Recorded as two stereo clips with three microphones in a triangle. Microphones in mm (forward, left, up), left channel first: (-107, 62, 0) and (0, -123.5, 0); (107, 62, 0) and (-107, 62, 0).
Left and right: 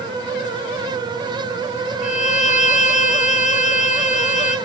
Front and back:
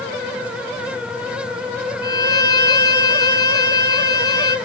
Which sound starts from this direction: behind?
A violin, at 2.0 s.